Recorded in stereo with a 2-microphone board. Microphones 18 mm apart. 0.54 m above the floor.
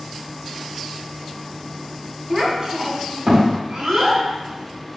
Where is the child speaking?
25° right (ahead or behind), 0.8 m; by 5.0 s 60° right (ahead or behind), 2 m.